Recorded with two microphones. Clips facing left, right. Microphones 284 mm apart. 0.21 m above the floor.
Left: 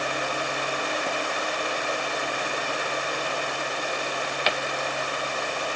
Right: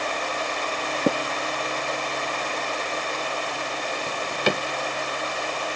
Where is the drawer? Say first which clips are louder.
Right 4 dB; 55° right (ahead or behind).